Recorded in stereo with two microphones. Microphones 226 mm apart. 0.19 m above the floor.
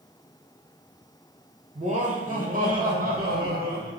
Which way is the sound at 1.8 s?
30° right (ahead or behind).